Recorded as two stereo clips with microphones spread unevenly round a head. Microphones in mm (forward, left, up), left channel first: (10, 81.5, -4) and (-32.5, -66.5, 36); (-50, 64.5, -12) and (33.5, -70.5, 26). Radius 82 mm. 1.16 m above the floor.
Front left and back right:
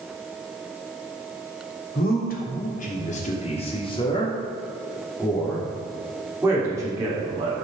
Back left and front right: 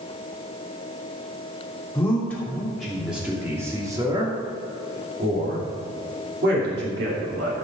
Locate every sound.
1.9 s a man speaking: 45° left, 3 m; by 7.7 s 40° right, 3.5 m